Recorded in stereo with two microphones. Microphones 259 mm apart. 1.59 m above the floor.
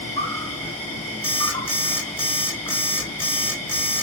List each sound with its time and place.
0.0 s an insect: 65° right (ahead or behind), 3 m
1.2 s an alarm clock: 55° right (ahead or behind), 2.5 m